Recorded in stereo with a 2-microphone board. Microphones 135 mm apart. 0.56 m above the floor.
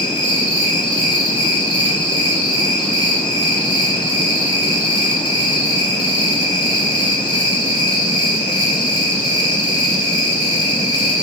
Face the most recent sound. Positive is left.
turn(degrees=35)  # may be behind; listen again after turning